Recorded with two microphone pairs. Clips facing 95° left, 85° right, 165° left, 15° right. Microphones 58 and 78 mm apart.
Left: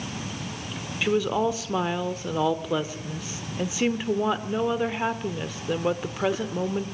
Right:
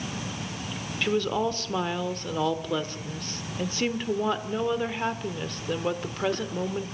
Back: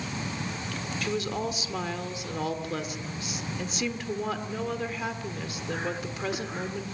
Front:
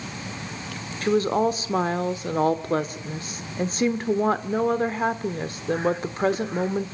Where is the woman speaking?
15° left, 1.2 m.